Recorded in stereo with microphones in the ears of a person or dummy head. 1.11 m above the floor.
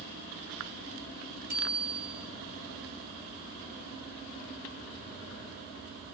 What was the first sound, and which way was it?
A bicycle bell, 45° right (ahead or behind).